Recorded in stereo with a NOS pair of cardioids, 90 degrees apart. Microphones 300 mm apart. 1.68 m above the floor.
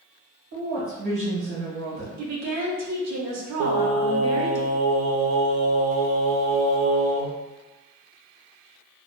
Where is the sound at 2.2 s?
70° right, 0.9 m.